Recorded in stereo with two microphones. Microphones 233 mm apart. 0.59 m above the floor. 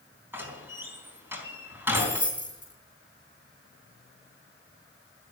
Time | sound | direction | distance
0.3 | a door slam | 10° right (ahead or behind) | 3.5 m
1.9 | keys jangling | 20° right (ahead or behind) | 8 m